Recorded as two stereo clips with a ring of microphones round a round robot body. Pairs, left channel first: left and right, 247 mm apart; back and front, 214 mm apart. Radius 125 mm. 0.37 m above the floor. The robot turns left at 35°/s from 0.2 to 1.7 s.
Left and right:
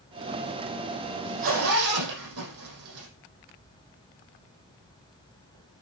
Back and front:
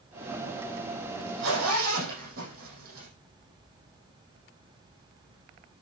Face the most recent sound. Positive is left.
turn(degrees=-55)